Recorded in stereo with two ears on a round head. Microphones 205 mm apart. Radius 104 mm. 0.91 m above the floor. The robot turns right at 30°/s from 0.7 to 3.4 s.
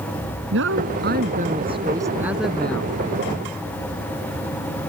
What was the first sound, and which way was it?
A woman speaking, 55° right.